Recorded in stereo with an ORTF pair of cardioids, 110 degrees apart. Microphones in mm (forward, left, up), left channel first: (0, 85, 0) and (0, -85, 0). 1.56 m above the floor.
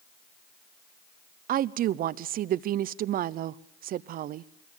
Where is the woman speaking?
60° right, 0.6 m.